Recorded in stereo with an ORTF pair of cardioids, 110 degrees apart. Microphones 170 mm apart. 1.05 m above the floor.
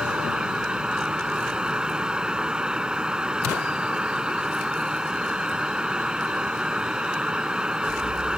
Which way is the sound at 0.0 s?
5° right.